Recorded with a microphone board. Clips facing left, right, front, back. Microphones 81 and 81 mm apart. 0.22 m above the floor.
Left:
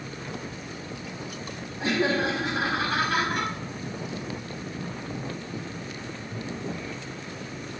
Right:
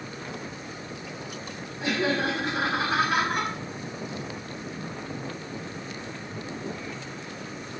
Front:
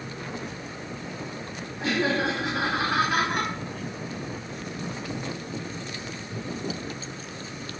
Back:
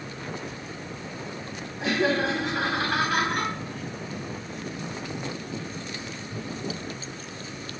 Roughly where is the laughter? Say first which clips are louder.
Left 1 dB, back 1 dB; left.